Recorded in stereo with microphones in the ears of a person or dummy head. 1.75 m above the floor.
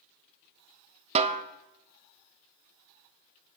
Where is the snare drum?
40° right (ahead or behind), 0.6 m.